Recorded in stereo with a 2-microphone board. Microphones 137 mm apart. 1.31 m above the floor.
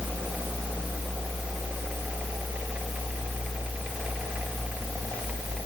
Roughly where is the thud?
I don't hear a thud.